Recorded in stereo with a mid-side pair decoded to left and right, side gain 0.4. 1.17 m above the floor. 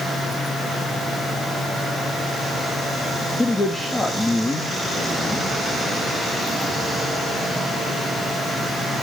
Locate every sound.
0.0 s a fan: 50° left, 7.5 m
3.4 s a man speaking: 25° left, 2.5 m